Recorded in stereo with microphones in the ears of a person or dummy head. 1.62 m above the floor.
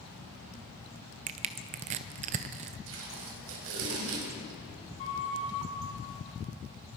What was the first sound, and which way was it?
Crushing, 30° right (ahead or behind).